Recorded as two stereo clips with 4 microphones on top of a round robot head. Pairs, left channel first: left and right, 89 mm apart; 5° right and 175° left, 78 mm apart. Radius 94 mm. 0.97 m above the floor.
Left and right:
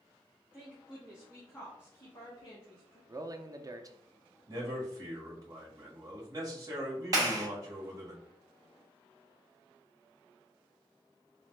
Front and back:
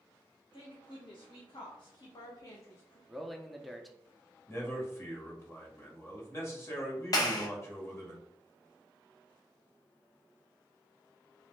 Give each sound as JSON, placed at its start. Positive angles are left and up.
{"t": 0.5, "sound": "a woman speaking", "azimuth_deg": -10, "distance_m": 1.4}
{"t": 3.1, "sound": "a man speaking", "azimuth_deg": -95, "distance_m": 0.6}
{"t": 4.5, "sound": "a man speaking", "azimuth_deg": -50, "distance_m": 1.3}
{"t": 7.1, "sound": "a clap", "azimuth_deg": -45, "distance_m": 0.9}